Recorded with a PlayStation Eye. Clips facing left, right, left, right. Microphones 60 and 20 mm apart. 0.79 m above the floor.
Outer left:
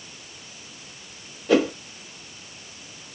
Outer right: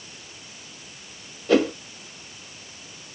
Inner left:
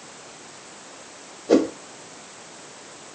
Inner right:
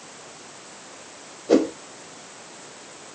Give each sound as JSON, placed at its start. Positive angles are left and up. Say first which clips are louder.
{"t": 1.5, "sound": "a whoosh", "louder": "even, even", "side_deg": 0, "distance_m": 1.0}